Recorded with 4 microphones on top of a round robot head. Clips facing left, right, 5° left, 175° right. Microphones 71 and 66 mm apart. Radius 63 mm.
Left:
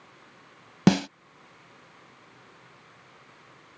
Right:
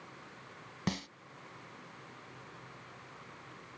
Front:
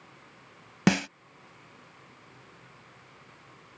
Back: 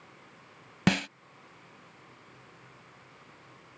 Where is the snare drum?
85° left.